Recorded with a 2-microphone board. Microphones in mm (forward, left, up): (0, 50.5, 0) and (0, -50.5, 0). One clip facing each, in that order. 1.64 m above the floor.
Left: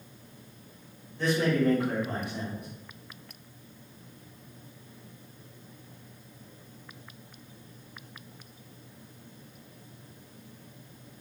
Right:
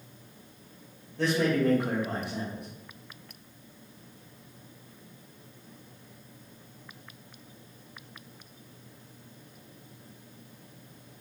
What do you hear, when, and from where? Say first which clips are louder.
1.2 s a man speaking: even; 75° right (ahead or behind), 1.0 m